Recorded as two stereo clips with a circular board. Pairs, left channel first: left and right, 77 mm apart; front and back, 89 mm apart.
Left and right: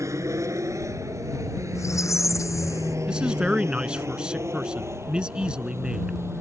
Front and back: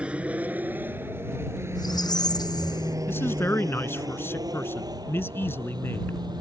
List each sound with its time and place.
0.0 s an aircraft: 110° right; by 6.4 s 145° right
1.8 s a squeak: 40° left
3.1 s a man speaking: 25° right